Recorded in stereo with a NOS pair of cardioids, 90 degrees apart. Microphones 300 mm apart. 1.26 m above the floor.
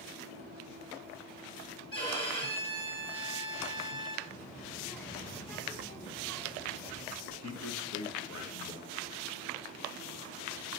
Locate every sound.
1.9 s a violin: 15° left, 2.0 m
4.3 s a child speaking: 5° left, 1.2 m
7.2 s a man speaking: 60° left, 1.5 m